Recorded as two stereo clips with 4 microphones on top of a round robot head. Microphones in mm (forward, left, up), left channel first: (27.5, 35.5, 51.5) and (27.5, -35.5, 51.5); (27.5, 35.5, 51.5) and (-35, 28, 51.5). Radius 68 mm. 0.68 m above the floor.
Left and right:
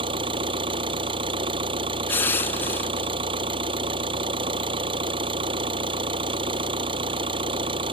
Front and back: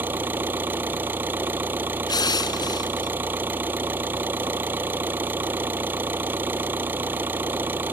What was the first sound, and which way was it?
An engine running, 105° right.